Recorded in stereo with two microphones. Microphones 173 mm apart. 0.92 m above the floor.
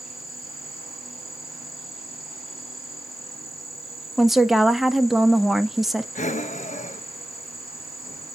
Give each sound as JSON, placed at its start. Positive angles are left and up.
{"t": 0.0, "sound": "an insect", "side_deg": 0, "distance_m": 1.8}
{"t": 4.2, "sound": "a woman speaking", "side_deg": 0, "distance_m": 0.8}
{"t": 6.2, "sound": "breathing", "side_deg": 45, "distance_m": 0.8}